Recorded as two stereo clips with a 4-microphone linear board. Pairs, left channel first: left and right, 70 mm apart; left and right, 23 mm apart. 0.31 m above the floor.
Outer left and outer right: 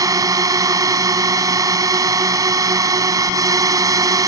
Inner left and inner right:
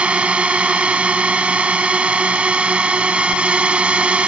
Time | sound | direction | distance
0.0 | a drone | 60° right (ahead or behind) | ?